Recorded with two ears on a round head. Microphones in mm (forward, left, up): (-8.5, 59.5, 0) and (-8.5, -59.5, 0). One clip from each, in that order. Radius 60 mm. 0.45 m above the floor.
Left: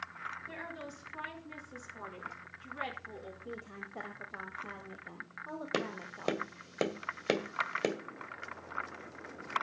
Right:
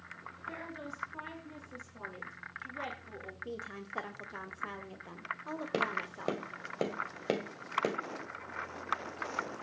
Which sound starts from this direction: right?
A woman speaking, at 3.5 s.